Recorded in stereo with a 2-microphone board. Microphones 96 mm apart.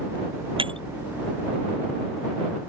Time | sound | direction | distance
0.6 | breaking glass | 70° right (ahead or behind) | ?